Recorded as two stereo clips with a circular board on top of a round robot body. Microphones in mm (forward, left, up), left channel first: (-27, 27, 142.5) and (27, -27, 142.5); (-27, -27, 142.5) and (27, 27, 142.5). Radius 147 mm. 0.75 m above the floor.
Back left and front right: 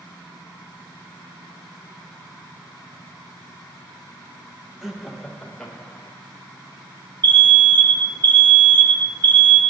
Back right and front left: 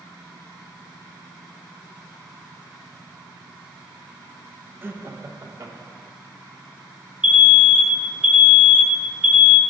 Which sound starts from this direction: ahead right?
An alarm, at 7.2 s.